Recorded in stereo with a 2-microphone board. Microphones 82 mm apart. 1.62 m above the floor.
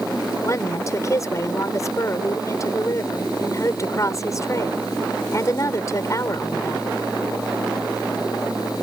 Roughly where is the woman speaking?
Left.